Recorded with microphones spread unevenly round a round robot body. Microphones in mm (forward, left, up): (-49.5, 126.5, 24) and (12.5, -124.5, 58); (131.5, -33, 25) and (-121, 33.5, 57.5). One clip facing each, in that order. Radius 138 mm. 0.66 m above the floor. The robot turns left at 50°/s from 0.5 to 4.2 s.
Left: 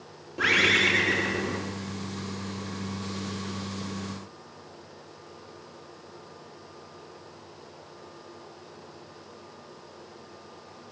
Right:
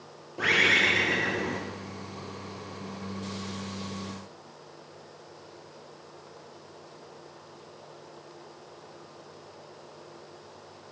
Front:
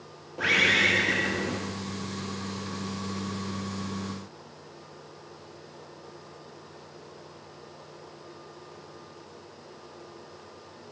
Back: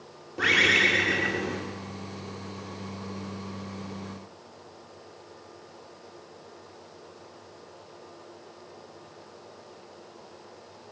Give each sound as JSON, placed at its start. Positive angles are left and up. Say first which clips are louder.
{"t": 0.4, "sound": "a bird", "louder": "left 2 dB, back 2 dB", "azimuth_deg": 105, "distance_m": 1.1}